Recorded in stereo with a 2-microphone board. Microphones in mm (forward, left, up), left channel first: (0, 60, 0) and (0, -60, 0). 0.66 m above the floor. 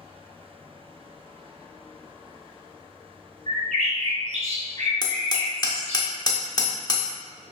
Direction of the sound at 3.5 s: 85° right.